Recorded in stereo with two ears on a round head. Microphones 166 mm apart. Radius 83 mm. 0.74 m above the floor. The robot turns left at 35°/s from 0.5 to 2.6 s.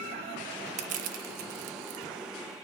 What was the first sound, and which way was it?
Crushing, 40° right (ahead or behind).